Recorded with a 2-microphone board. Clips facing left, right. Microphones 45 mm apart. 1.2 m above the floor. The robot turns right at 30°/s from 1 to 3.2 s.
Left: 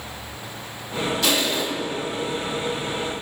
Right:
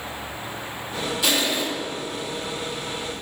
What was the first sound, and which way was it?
Crushing, 10° right (ahead or behind).